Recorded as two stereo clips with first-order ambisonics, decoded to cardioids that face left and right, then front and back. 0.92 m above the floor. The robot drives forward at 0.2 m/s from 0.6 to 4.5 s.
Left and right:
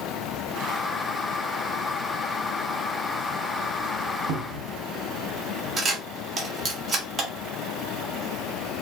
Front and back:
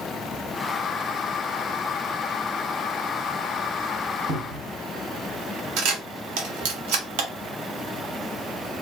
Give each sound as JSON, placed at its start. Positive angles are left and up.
{"t": 4.3, "sound": "a cupboard door", "azimuth_deg": -120, "distance_m": 1.1}
{"t": 5.8, "sound": "a camera shutter", "azimuth_deg": -165, "distance_m": 1.1}